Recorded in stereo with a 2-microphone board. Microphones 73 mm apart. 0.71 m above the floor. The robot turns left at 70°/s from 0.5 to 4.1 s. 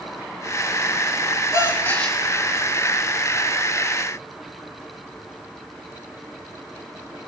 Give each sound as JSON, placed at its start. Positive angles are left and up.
{"t": 1.5, "sound": "a gasp", "azimuth_deg": 50, "distance_m": 4.0}